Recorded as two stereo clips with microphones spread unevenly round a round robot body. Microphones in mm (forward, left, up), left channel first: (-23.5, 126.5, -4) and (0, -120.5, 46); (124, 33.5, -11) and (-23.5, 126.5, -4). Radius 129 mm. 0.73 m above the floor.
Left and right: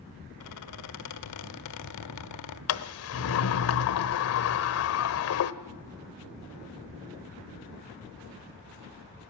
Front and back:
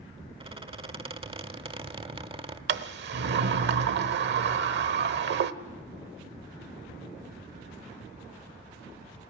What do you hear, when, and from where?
0.4 s a squeak: 90° left, 1.6 m
2.7 s a sliding door: 130° left, 1.1 m